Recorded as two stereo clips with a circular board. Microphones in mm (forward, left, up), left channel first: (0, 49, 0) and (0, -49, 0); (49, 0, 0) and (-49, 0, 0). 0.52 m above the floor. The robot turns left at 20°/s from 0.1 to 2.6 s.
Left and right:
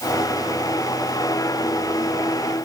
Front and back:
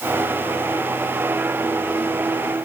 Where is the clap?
I don't hear a clap.